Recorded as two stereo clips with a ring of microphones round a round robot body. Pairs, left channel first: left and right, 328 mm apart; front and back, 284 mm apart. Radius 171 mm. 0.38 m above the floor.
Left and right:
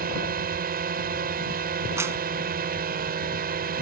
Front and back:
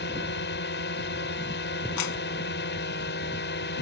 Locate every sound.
0.0 s a drone: 40° right
2.0 s a clap: 5° right